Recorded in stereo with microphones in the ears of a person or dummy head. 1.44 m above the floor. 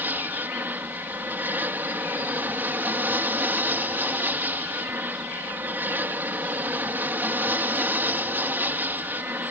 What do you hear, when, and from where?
0.0 s an aircraft: 10° right (ahead or behind)